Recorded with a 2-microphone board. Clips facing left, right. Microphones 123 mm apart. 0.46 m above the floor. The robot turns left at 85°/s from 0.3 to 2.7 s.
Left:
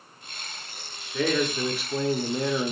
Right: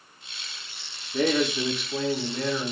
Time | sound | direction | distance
1.1 | a man speaking | 15° right (ahead or behind) | 0.7 m